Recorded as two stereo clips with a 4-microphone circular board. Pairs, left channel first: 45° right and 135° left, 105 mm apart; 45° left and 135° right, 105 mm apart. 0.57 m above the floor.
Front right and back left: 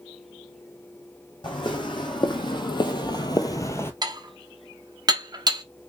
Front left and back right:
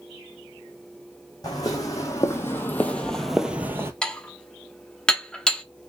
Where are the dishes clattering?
125° left, 0.5 m.